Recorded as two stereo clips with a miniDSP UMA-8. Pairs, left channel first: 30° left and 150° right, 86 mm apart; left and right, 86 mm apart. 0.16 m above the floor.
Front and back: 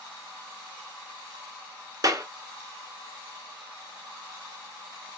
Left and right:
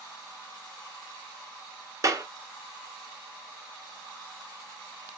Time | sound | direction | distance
2.0 | a clap | 120° right | 1.2 m